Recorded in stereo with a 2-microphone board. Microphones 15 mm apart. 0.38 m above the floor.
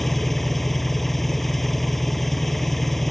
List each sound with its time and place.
0.0 s an engine running: 15° left (ahead or behind)